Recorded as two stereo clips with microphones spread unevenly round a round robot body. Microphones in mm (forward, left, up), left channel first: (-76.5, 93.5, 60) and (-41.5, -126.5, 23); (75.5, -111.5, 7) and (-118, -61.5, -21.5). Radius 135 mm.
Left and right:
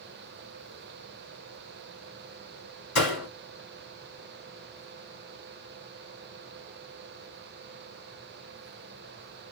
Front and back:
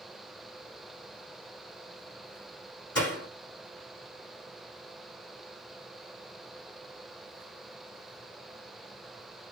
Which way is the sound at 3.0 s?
65° left.